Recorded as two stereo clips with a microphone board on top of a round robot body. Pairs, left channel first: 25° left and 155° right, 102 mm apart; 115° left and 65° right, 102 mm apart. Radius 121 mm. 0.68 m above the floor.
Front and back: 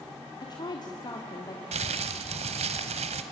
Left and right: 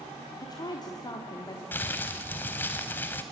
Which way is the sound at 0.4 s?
65° left.